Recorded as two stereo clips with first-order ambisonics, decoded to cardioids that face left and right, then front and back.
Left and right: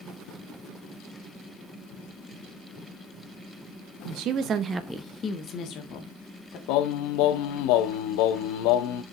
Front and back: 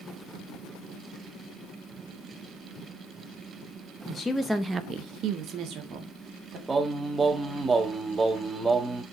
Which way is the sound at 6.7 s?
105° left.